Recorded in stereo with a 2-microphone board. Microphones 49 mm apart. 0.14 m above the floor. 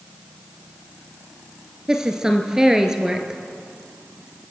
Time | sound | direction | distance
1.9 | a woman speaking | 10° right (ahead or behind) | 2 m